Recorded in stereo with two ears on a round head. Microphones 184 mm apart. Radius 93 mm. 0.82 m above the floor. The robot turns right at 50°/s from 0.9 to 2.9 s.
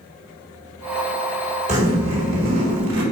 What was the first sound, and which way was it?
A zipper, 140° right.